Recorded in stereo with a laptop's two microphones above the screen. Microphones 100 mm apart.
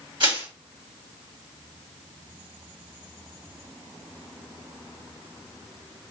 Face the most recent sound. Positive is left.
turn(degrees=-50)  # may be behind; listen again after turning